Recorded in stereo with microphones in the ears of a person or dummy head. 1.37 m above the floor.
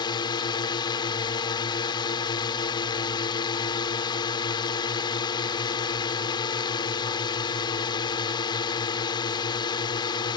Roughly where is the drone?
Left.